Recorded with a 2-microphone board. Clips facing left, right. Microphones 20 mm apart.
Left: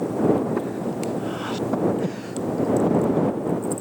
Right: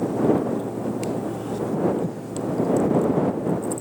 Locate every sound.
0.6 s breathing: 45° left (ahead or behind)